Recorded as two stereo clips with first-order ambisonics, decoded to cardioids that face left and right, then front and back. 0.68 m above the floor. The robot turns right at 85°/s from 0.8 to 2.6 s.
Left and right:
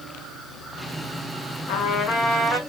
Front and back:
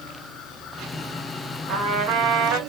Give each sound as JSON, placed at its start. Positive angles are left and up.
{"t": 1.7, "sound": "a trumpet", "azimuth_deg": 115, "distance_m": 1.8}